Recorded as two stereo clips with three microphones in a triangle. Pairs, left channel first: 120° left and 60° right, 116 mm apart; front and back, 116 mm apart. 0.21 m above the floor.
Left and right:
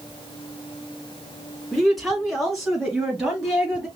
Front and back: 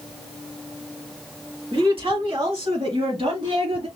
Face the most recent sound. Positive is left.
turn(degrees=-150)